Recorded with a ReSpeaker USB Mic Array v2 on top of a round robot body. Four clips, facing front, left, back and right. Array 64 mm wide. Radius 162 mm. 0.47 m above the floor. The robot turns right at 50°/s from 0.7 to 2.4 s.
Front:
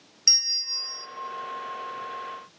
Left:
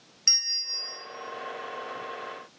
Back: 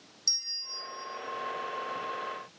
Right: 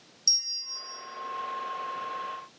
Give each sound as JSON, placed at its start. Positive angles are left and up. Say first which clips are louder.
{"t": 0.3, "sound": "a bell", "louder": "left 7 dB, front 8 dB", "azimuth_deg": 60, "distance_m": 1.2}